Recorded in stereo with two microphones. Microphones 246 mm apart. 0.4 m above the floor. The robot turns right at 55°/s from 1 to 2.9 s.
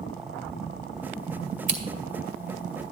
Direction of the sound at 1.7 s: 50° right (ahead or behind).